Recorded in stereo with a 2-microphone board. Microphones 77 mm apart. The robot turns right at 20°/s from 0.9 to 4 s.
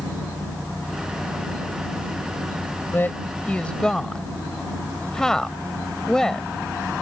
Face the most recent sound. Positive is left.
turn(degrees=10)  # may be behind; listen again after turning